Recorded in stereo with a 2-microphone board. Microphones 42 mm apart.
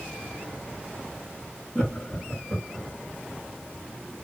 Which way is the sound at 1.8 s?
20° left (ahead or behind).